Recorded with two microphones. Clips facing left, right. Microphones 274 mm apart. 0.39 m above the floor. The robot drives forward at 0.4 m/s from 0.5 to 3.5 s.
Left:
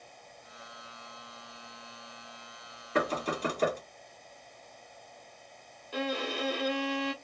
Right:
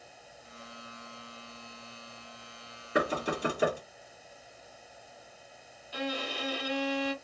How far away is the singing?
No singing in this recording.